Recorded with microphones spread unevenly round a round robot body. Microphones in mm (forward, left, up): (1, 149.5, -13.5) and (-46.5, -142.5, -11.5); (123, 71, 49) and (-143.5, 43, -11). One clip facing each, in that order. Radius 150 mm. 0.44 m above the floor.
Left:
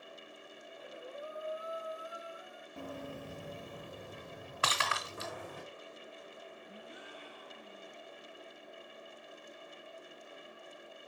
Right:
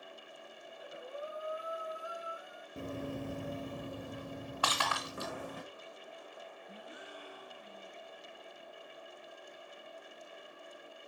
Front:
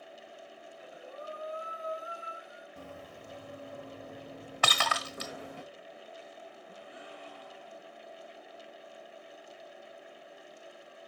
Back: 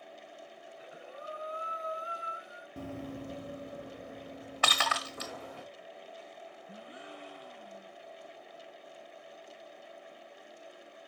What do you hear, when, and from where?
0.7 s breathing: straight behind, 2 m
2.8 s running footsteps: 165° right, 0.5 m; by 5.6 s 70° right, 1.8 m
4.6 s breaking glass: 10° left, 1.4 m
6.7 s a gasp: 175° right, 2 m